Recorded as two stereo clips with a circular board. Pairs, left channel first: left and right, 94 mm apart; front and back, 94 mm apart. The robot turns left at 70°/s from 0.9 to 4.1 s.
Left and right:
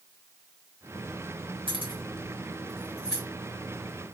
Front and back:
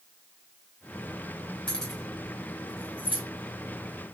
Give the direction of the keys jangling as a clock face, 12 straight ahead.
2 o'clock.